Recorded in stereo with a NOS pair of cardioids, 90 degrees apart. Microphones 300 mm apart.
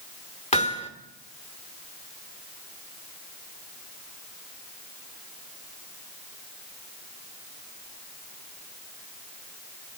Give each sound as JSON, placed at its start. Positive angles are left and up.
{"t": 0.5, "sound": "hammering", "azimuth_deg": 20, "distance_m": 2.5}